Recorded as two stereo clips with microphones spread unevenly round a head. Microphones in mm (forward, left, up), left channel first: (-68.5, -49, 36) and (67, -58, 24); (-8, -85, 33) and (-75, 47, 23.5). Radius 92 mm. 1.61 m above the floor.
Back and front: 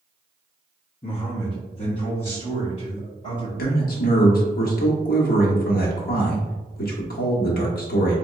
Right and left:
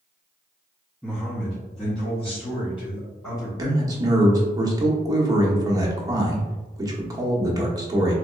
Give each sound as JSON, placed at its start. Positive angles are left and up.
{"t": 1.0, "sound": "a man speaking", "azimuth_deg": -145, "distance_m": 0.7}
{"t": 3.6, "sound": "a man speaking", "azimuth_deg": -175, "distance_m": 1.0}